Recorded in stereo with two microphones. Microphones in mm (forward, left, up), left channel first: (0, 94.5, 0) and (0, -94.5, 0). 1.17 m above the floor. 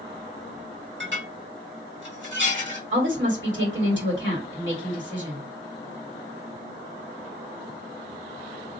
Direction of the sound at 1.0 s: 80° right.